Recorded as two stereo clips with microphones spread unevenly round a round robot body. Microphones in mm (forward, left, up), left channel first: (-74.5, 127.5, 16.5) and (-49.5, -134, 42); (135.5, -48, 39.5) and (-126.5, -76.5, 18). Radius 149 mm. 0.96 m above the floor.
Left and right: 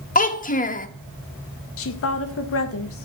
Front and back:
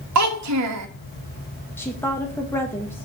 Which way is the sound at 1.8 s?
90° left.